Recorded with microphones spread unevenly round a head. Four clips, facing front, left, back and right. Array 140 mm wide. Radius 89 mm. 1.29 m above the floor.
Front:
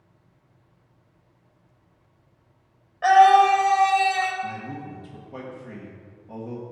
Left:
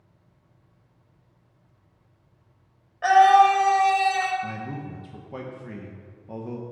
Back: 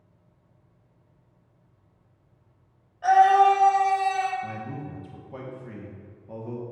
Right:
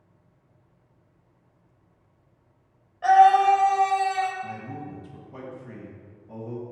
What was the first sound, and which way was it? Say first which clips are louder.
A scream: left 1 dB, front 3 dB; 45° left.